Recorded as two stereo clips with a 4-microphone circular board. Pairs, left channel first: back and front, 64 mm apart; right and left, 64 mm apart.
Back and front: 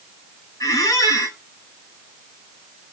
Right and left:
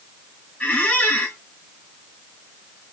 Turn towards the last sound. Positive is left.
turn(degrees=-155)